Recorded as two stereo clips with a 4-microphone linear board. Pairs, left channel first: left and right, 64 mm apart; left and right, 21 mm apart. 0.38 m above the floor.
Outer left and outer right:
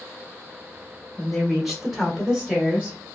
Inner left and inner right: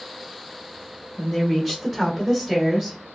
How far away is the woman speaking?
About 1.5 m.